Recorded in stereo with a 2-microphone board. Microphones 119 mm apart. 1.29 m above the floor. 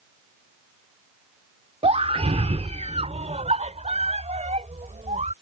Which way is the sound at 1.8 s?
65° right (ahead or behind).